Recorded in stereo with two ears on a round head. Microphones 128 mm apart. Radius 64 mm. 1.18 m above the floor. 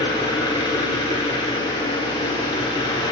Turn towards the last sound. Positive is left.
turn(degrees=30)  # may be behind; listen again after turning